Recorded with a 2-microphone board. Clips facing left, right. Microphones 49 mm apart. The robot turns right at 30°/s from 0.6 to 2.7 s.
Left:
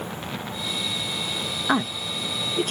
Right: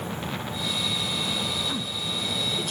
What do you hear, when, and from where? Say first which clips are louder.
1.7 s a woman speaking: left 7 dB; 60° left (ahead or behind), 0.8 m; by 2.7 s 45° left (ahead or behind), 0.8 m